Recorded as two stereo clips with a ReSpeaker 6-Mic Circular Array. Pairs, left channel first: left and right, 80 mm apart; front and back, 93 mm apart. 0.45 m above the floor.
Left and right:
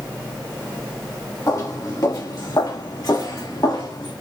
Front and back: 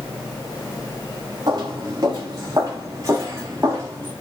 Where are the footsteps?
135° left, 3.5 m; by 4.1 s 120° left, 6 m.